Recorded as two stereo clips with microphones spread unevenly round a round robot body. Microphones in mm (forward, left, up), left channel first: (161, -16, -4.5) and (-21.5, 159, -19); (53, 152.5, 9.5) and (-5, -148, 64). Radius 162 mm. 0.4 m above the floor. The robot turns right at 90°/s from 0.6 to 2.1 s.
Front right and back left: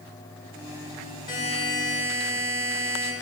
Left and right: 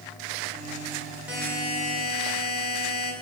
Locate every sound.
1.3 s a buzzer: 5° right, 1.5 m; by 3.1 s 70° left, 1.5 m